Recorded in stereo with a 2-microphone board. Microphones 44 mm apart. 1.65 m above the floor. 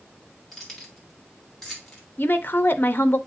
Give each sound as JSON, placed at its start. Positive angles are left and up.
{"t": 0.5, "sound": "keys jangling", "side_deg": 5, "distance_m": 2.5}
{"t": 2.2, "sound": "a woman speaking", "side_deg": 55, "distance_m": 0.9}